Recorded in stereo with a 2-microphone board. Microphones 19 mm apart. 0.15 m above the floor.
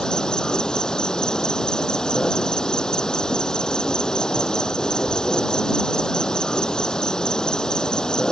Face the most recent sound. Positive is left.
turn(degrees=40)  # may be behind; listen again after turning